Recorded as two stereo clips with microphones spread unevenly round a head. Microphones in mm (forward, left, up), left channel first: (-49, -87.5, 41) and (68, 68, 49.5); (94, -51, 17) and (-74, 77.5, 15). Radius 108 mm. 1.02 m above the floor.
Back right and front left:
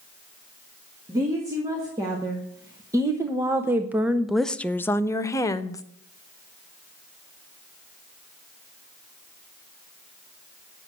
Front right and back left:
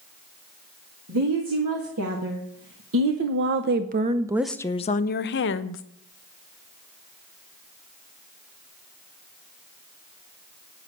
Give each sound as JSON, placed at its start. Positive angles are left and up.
{"t": 1.1, "sound": "a woman speaking", "azimuth_deg": 130, "distance_m": 2.5}